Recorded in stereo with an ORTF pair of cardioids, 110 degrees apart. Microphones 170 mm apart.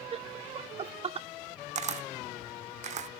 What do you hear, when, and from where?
0.1 s laughter: 35° right, 0.8 m
1.8 s a camera shutter: 45° right, 0.8 m